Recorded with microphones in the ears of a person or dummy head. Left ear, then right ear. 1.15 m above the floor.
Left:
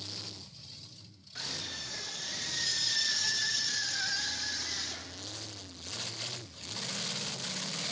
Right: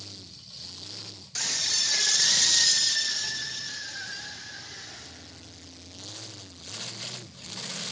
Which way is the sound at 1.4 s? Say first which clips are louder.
Right 11 dB; 75° right (ahead or behind).